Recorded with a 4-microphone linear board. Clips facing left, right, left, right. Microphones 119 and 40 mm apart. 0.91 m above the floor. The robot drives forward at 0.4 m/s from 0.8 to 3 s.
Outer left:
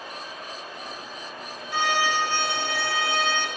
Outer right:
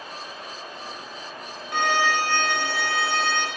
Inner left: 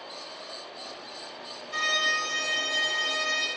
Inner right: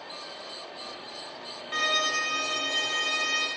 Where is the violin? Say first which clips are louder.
Outer right 2 dB, even; 55° right (ahead or behind), 0.5 m; by 3.5 s 35° right (ahead or behind), 0.7 m.